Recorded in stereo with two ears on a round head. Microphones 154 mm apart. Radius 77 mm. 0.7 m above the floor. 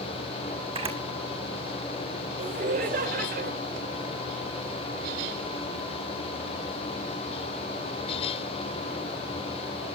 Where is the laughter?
50° right (ahead or behind), 2.5 m.